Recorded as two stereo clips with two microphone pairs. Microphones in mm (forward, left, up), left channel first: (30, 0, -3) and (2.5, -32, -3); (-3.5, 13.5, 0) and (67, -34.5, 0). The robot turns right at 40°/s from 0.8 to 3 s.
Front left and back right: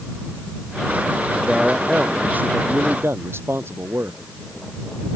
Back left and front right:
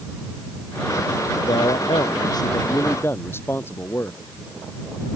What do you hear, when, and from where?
1.4 s a man speaking: 145° left; by 4.2 s 150° right